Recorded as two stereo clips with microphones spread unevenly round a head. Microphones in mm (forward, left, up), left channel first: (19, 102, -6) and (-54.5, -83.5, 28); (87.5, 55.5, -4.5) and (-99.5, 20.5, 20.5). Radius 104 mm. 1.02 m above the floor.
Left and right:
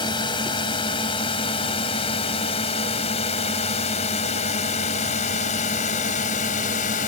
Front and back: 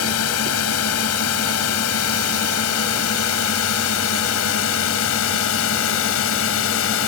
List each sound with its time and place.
0.0 s a drone: straight ahead; by 7.1 s 15° left